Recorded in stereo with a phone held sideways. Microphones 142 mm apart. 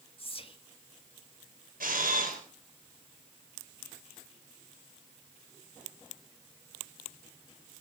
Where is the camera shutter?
90° right, 4.5 m.